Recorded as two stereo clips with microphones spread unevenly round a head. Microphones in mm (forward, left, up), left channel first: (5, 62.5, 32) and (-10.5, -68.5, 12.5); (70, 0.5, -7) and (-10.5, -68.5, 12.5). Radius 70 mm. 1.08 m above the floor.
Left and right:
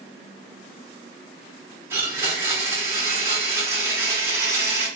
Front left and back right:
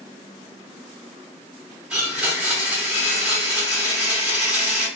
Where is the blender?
170° right, 0.7 m.